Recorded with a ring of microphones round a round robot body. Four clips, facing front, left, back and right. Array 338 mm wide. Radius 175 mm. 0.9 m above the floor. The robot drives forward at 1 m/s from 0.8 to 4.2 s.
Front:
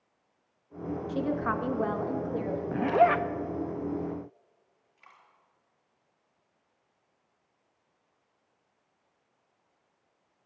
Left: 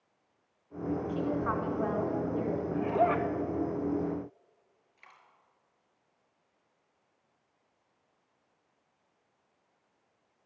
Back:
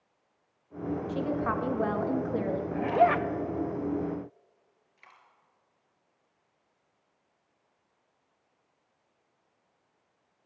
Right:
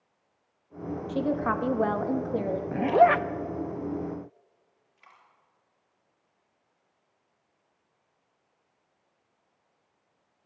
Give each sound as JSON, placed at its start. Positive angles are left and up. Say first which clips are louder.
{"t": 1.1, "sound": "a woman speaking", "louder": "right 7 dB, front 2 dB", "azimuth_deg": -65, "distance_m": 1.7}
{"t": 2.7, "sound": "a zipper", "louder": "right 8 dB, front 1 dB", "azimuth_deg": -55, "distance_m": 0.7}
{"t": 5.0, "sound": "a dropped coin", "louder": "right 1 dB, even", "azimuth_deg": 135, "distance_m": 4.0}